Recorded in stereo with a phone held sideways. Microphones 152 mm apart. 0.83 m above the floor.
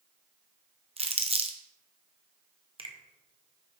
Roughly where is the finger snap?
Right.